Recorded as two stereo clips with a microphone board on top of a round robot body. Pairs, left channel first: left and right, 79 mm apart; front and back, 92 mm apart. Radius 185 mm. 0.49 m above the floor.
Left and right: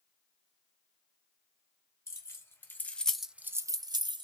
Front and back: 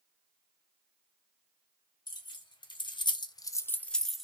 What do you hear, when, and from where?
2.1 s keys jangling: 35° left, 1.0 m; by 4.2 s 95° right, 0.7 m